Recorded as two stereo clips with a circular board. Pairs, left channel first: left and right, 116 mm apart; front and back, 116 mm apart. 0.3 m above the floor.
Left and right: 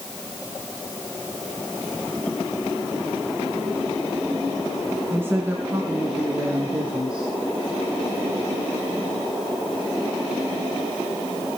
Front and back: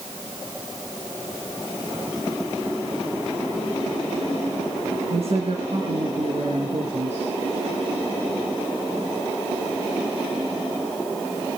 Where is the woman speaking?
160° right, 2.5 m; by 7.3 s 170° right, 5 m.